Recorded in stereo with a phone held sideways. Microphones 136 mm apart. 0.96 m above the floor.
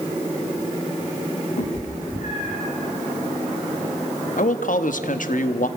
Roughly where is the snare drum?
I don't hear a snare drum.